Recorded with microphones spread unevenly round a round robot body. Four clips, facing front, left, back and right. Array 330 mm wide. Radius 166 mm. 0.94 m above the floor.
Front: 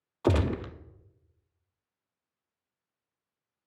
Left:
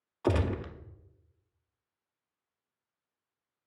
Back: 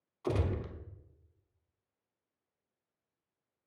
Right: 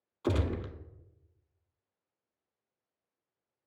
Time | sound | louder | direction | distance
0.2 | a gunshot | left 3 dB, front 7 dB | 15° left | 0.6 m